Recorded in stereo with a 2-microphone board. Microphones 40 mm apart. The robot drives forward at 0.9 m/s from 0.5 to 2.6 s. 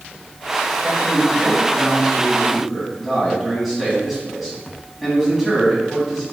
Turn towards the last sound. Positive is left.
turn(degrees=-5)  # may be behind; listen again after turning